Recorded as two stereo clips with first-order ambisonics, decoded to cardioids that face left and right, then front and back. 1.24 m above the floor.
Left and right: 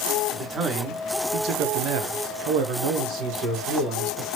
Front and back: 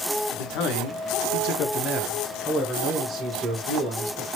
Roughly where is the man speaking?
Ahead.